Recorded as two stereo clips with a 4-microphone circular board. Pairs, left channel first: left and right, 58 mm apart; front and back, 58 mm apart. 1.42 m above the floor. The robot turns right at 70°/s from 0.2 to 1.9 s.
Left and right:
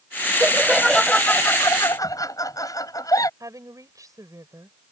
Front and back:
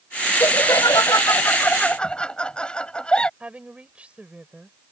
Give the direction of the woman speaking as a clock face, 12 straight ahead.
4 o'clock.